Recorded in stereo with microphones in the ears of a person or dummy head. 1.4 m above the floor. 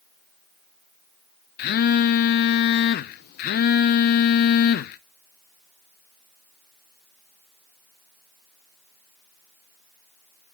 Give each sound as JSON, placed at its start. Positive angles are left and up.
{"t": 1.6, "sound": "a phone buzzing", "side_deg": 55, "distance_m": 0.7}